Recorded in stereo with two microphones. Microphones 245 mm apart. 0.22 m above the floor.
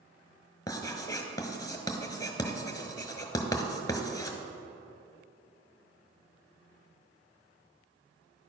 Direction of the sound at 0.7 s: 15° left (ahead or behind).